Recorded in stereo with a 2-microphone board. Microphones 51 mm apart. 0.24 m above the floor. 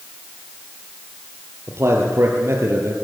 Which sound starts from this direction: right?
A man speaking, at 1.7 s.